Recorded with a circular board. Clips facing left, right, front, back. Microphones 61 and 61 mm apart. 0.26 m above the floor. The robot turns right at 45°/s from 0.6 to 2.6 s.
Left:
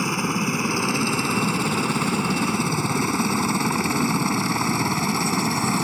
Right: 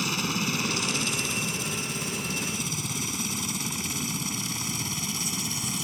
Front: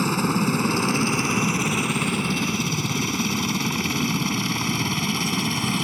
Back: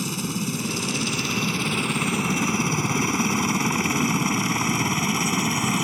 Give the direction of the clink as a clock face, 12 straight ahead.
No clink in this recording.